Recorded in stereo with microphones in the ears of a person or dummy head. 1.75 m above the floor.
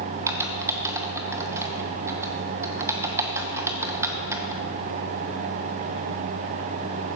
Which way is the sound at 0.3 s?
15° right (ahead or behind).